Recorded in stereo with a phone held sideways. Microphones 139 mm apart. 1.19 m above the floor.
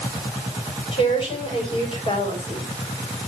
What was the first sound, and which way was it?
A woman speaking, 40° left (ahead or behind).